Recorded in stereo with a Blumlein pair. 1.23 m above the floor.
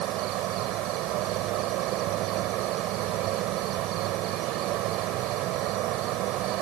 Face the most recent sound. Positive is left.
turn(degrees=-40)